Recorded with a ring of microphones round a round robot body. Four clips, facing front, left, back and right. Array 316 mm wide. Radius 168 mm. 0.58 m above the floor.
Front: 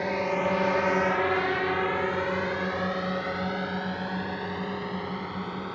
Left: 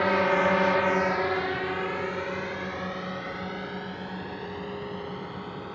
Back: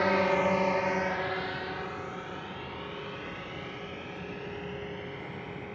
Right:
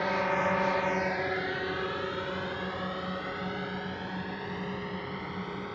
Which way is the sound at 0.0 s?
120° left.